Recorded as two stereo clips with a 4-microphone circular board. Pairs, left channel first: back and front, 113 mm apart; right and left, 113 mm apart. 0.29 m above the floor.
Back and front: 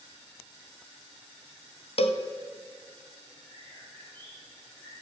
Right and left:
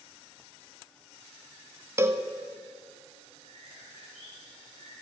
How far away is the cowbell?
About 0.9 m.